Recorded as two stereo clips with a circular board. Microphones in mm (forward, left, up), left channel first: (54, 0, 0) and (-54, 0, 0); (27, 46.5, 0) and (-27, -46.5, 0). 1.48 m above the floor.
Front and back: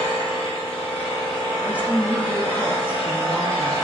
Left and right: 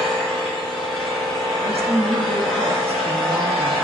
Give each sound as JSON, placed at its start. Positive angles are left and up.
{"t": 0.0, "sound": "an engine running", "azimuth_deg": -20, "distance_m": 1.3}
{"t": 1.6, "sound": "a woman speaking", "azimuth_deg": -100, "distance_m": 0.6}